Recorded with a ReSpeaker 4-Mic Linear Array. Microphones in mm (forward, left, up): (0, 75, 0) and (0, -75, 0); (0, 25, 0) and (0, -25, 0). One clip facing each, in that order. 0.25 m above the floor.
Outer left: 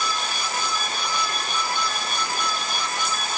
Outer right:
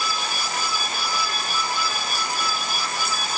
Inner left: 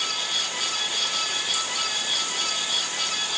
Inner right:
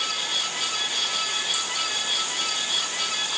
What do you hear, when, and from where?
Only background noise.